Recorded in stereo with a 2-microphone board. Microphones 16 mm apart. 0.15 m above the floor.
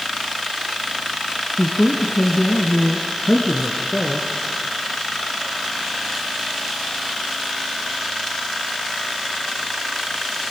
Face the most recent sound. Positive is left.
turn(degrees=20)  # may be behind; listen again after turning